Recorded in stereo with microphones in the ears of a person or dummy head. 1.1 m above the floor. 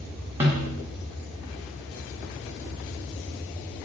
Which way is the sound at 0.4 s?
15° right (ahead or behind).